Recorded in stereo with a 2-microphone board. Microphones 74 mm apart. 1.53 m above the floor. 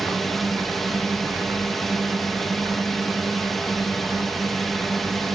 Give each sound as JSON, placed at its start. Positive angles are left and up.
{"t": 0.0, "sound": "a drone", "side_deg": 0}